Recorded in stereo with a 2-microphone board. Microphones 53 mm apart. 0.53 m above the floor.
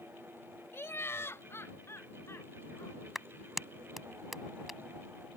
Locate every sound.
0.7 s laughter: 50° left (ahead or behind); by 3.0 s 55° left (ahead or behind)
3.1 s a clap: 5° right (ahead or behind)